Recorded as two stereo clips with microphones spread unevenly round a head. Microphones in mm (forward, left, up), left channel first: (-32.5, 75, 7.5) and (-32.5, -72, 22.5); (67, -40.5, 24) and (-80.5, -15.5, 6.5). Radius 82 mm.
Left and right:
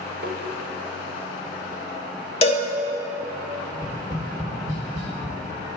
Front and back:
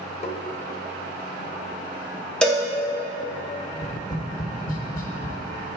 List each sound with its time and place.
0.2 s tapping: 60° right, 0.8 m
2.4 s a cowbell: 65° left, 0.5 m
3.7 s tapping: 40° right, 0.9 m